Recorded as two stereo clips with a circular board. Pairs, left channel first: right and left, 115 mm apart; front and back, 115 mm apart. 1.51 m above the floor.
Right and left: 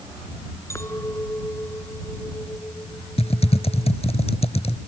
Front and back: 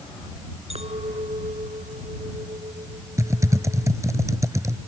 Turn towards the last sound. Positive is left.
turn(degrees=-120)